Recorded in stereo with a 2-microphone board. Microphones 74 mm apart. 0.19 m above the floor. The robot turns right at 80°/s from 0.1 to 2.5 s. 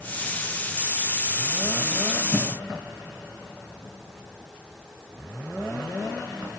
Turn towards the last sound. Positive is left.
turn(degrees=-50)  # may be behind; listen again after turning